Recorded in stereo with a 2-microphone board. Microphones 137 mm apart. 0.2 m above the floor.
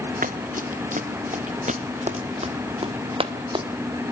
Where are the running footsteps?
85° right, 1.9 m; by 3.7 s 40° right (ahead or behind), 2.5 m.